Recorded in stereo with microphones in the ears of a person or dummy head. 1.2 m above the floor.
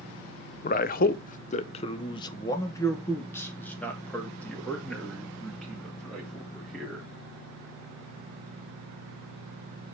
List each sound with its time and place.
0.6 s a man speaking: 40° left (ahead or behind), 0.6 m; by 7.1 s 5° left (ahead or behind), 3 m